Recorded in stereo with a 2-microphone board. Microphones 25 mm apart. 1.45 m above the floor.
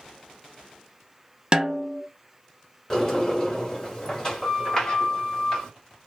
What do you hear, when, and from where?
1.5 s a snare drum: 30° right (ahead or behind), 0.5 m
2.9 s a sliding door: 25° left (ahead or behind), 1.4 m